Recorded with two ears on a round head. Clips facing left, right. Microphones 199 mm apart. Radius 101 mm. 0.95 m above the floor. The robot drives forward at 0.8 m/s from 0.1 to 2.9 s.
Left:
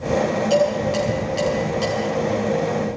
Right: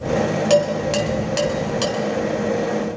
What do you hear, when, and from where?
0.5 s dishes clattering: 85° right, 4 m; by 2.0 s 80° right, 4 m